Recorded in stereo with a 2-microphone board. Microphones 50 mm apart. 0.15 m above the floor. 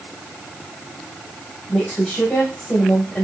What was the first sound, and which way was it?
A woman speaking, 15° left (ahead or behind).